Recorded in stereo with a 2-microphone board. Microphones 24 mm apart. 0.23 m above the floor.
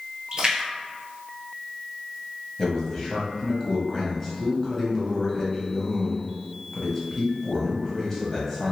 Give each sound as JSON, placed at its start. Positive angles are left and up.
{"t": 0.3, "sound": "a splash", "side_deg": -35, "distance_m": 1.1}
{"t": 2.6, "sound": "a man speaking", "side_deg": 15, "distance_m": 0.9}